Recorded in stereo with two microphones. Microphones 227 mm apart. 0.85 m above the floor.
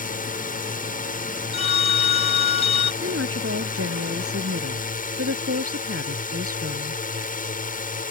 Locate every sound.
0.0 s a drone: 35° left (ahead or behind)
1.5 s a phone ringing: 25° left (ahead or behind)
3.0 s a woman speaking: 80° right